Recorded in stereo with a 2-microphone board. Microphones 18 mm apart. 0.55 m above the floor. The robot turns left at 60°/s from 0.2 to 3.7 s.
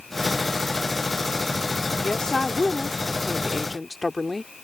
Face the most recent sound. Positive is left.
turn(degrees=-5)